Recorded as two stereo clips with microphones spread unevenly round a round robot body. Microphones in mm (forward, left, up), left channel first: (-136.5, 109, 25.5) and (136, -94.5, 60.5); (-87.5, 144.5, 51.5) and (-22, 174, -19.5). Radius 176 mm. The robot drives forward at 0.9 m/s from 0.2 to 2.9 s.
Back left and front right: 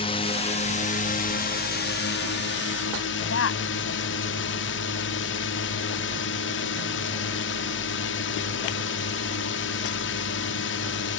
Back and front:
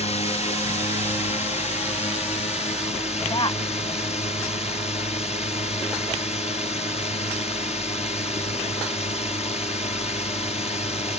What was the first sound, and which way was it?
A drone, 175° right.